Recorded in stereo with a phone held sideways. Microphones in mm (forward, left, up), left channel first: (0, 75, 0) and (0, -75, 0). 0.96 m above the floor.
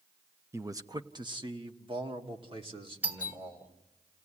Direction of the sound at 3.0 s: 10° right (ahead or behind).